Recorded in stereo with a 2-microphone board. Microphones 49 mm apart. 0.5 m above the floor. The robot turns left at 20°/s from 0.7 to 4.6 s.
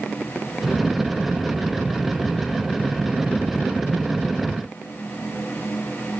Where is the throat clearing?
I don't hear throat clearing.